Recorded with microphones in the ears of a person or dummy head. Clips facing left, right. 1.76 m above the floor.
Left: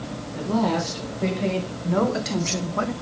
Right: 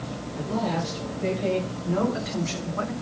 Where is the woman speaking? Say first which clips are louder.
Left 5 dB; 60° left (ahead or behind), 2.5 m; by 2.9 s 45° left (ahead or behind), 0.7 m.